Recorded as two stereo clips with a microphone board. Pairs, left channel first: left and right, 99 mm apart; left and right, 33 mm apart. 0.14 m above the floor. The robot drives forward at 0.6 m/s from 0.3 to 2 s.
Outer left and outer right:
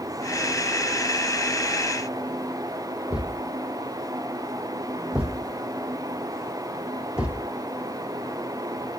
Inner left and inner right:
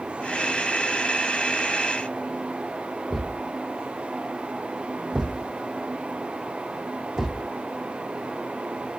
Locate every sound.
3.1 s a thud: 10° right (ahead or behind), 1.6 m